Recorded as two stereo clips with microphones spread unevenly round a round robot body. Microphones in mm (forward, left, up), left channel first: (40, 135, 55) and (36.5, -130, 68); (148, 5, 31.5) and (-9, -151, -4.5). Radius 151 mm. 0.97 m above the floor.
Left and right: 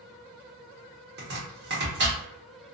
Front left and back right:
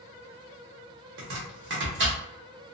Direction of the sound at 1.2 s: 135° right.